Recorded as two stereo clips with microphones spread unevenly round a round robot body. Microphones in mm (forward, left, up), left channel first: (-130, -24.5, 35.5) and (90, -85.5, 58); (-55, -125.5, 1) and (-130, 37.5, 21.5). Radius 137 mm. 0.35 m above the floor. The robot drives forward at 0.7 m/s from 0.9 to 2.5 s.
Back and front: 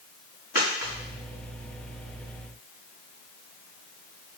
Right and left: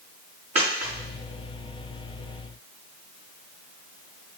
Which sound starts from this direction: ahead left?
A dropped coin, at 0.6 s.